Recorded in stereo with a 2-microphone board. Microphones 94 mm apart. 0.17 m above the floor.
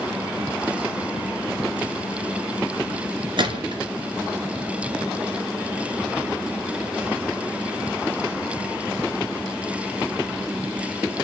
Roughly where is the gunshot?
Right.